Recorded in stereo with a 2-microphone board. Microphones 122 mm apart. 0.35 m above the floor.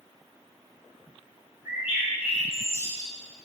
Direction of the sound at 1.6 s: 20° right (ahead or behind).